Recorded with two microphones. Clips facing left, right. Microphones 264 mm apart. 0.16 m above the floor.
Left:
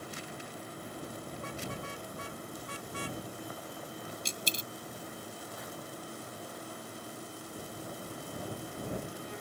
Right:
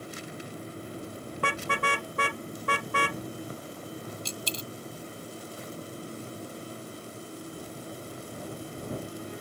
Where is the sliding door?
I don't hear a sliding door.